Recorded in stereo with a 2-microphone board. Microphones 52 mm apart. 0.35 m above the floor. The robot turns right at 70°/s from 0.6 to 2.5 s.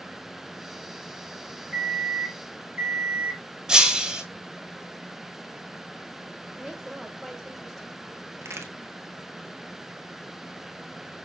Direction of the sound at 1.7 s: 160° left.